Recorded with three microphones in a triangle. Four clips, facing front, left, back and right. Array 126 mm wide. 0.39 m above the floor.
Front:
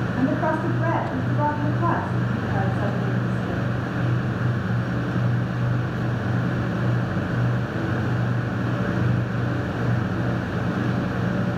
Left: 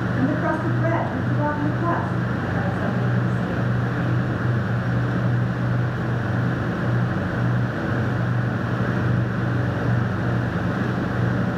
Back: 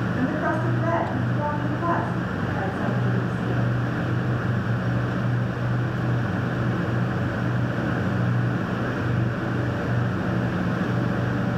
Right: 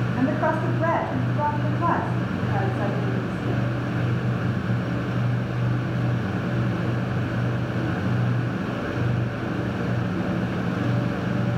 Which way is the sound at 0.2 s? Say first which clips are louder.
Even, front 3 dB; 65° right.